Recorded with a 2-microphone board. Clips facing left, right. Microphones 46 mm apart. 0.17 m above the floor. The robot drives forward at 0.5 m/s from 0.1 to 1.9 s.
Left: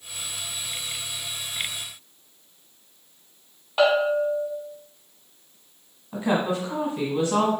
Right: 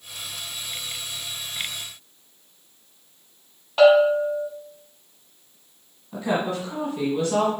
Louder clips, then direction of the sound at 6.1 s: Left 1 dB; 20° left (ahead or behind).